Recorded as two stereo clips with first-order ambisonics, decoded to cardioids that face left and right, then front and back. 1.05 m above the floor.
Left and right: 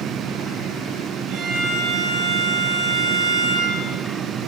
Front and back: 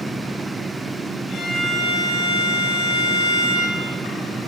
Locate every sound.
1.3 s a violin: 60° right, 9 m